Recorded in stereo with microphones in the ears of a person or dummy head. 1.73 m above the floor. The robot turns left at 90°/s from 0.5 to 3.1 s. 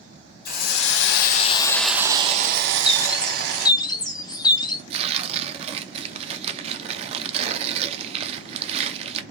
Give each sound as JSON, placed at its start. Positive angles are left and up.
{"t": 0.5, "sound": "a hiss", "azimuth_deg": 125, "distance_m": 0.6}
{"t": 2.7, "sound": "a bird", "azimuth_deg": -165, "distance_m": 0.5}
{"t": 4.9, "sound": "tearing paper", "side_deg": -35, "distance_m": 0.5}